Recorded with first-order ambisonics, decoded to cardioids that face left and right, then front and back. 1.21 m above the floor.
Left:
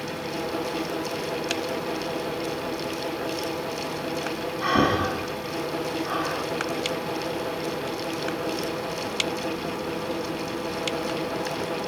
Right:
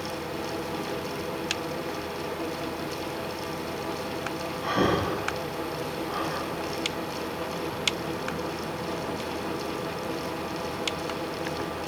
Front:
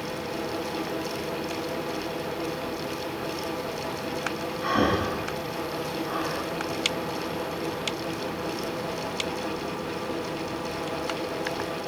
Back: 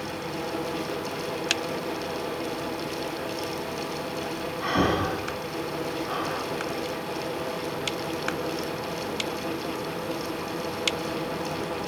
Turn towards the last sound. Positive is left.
turn(degrees=95)